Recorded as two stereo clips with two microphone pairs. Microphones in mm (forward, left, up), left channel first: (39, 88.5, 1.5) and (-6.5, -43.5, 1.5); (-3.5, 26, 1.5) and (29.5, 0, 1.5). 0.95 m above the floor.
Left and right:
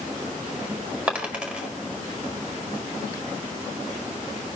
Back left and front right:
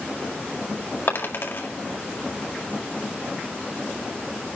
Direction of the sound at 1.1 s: 170° left.